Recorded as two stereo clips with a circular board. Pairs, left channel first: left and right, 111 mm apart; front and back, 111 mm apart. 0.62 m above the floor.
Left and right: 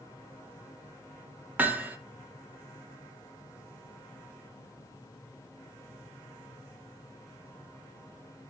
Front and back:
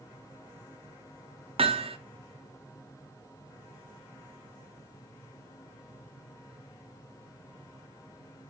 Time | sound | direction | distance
1.6 | hammering | 160° right | 0.5 m